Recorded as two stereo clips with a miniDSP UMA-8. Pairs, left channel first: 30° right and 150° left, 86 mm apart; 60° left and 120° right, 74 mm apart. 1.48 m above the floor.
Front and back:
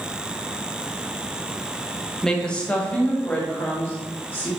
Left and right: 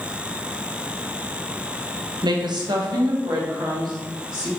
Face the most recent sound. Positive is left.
turn(degrees=-95)